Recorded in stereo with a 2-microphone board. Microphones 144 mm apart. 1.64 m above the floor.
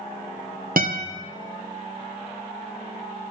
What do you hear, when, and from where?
0.8 s a guitar: 85° right, 1.2 m